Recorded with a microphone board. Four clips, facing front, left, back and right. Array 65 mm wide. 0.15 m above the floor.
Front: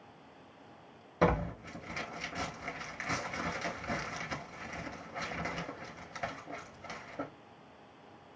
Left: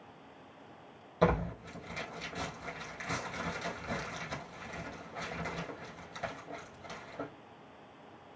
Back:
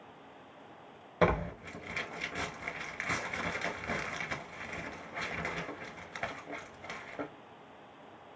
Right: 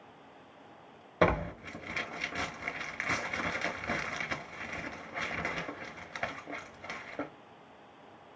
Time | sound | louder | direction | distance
1.2 | tearing paper | right 2 dB, back 1 dB | 115° right | 0.9 m